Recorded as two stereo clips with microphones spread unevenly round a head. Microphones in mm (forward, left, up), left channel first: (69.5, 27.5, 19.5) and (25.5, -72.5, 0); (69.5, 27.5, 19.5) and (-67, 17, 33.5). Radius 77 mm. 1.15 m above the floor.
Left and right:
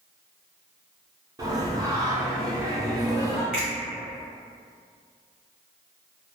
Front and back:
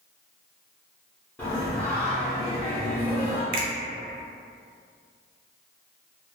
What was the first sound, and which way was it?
Singing, 70° right.